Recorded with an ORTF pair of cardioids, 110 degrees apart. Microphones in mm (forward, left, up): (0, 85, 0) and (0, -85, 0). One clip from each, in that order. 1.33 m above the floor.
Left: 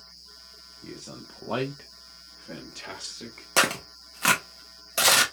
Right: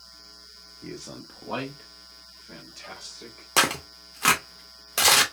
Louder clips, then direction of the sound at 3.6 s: Right 1 dB; 5° right.